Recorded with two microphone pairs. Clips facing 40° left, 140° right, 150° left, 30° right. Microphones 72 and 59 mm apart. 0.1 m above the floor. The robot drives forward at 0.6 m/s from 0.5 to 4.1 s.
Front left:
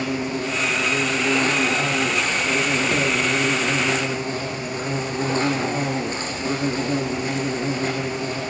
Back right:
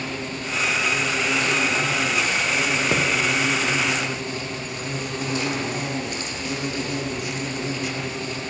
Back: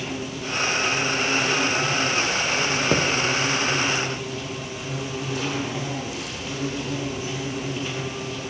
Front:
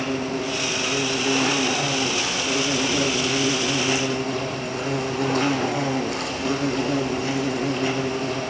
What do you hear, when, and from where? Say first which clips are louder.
0.0 s an insect: front left 5 dB, front 5 dB; 10° right, 9 m
2.9 s a thud: back right 1 dB, back 4 dB; 150° left, 8 m